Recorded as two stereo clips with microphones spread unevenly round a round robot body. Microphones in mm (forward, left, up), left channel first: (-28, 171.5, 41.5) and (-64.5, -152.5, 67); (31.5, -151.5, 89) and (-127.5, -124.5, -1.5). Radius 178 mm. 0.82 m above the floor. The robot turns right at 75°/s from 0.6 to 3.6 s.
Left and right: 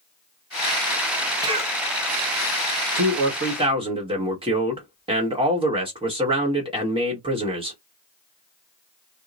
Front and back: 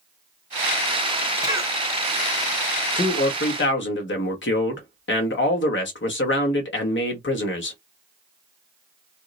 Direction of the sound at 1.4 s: 175° right.